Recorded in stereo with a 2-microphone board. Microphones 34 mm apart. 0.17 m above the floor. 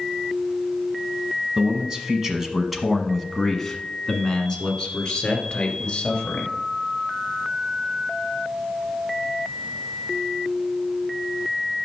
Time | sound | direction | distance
1.6 | a man speaking | 25° right (ahead or behind) | 1.2 m